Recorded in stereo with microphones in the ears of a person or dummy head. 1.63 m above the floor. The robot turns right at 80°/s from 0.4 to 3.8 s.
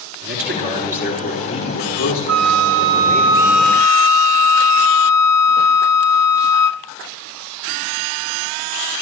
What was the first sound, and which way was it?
A man speaking, 55° right.